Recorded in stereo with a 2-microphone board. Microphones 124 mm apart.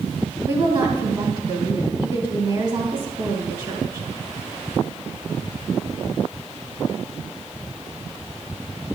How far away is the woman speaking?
About 3 m.